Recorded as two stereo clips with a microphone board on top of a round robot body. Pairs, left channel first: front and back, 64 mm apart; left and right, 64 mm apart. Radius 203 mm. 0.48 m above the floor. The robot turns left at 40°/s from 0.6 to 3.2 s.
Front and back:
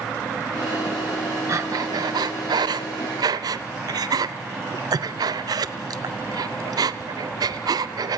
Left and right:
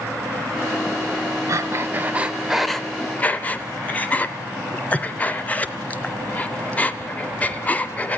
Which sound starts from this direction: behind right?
Breathing, at 1.5 s.